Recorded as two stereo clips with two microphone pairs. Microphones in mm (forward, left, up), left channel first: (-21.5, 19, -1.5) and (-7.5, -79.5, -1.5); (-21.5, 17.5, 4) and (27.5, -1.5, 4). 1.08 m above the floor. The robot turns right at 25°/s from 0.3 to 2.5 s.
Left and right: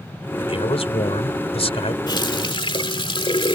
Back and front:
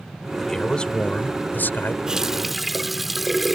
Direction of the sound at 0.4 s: 75° left.